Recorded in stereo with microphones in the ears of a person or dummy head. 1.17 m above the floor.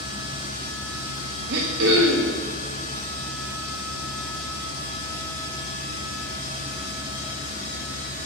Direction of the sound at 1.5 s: 60° right (ahead or behind).